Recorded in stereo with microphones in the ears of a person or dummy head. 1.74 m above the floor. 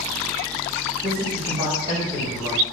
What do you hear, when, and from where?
1.0 s a man speaking: 35° right (ahead or behind), 1.6 m